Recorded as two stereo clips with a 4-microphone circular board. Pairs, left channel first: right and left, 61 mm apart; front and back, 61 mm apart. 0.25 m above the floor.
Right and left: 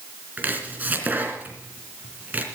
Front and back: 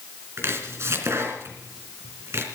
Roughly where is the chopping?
Behind left.